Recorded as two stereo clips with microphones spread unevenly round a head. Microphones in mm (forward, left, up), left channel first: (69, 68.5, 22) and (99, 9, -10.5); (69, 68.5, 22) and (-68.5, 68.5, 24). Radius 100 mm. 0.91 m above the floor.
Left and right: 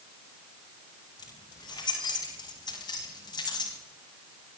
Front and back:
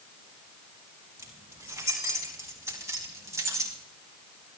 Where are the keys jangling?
110° left, 7.5 m; by 3.8 s 115° left, 5.5 m.